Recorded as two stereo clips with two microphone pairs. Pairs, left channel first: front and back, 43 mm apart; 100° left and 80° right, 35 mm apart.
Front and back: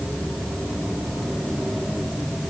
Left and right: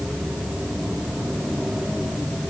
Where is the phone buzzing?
No phone buzzing in this recording.